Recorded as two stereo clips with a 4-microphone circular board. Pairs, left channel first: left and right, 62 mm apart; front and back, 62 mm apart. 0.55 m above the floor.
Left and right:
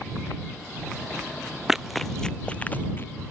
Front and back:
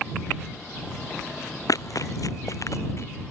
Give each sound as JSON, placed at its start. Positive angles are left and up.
{"t": 1.7, "sound": "running footsteps", "azimuth_deg": -10}